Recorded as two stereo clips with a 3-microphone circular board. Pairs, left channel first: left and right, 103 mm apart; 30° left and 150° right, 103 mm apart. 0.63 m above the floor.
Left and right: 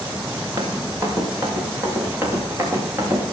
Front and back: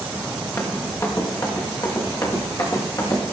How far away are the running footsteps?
About 4.5 m.